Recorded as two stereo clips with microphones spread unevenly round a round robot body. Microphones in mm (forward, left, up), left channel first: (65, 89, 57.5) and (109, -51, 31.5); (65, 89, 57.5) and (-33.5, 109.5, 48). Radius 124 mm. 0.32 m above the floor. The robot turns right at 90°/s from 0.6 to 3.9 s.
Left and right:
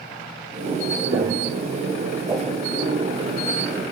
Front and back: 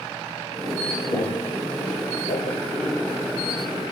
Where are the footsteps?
70° right, 3 m; by 2.6 s 25° left, 1.2 m.